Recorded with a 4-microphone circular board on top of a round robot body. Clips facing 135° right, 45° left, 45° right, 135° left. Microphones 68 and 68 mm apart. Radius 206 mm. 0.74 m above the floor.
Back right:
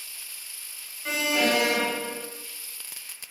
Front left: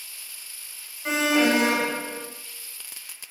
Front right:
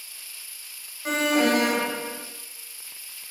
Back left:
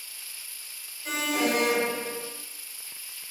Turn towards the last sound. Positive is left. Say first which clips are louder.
# front left 4 dB, front right 5 dB
turn(degrees=-20)